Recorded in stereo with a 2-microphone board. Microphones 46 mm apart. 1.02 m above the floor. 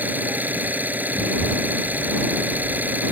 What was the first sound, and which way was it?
An engine running, 40° right (ahead or behind).